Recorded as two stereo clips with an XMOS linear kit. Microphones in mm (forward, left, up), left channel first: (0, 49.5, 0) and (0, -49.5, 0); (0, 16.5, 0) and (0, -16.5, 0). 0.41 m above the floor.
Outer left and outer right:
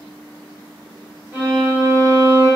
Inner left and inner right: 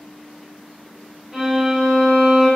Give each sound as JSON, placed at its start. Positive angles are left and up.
{"t": 1.3, "sound": "a violin", "side_deg": -30, "distance_m": 1.7}